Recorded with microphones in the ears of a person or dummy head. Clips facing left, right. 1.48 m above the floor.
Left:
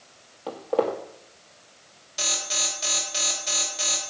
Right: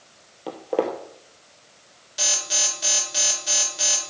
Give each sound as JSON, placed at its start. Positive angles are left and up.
{"t": 0.5, "sound": "footsteps", "side_deg": -20, "distance_m": 2.0}
{"t": 2.2, "sound": "an alarm", "side_deg": -10, "distance_m": 3.0}